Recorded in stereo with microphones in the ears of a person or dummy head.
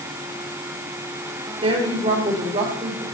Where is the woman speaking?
30° right (ahead or behind), 4 m.